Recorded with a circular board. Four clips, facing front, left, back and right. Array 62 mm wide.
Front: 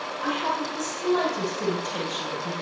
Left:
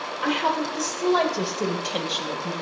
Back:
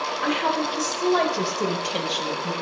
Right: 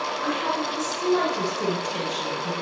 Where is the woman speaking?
150° left, 2.0 m; by 2.5 s 145° left, 3 m.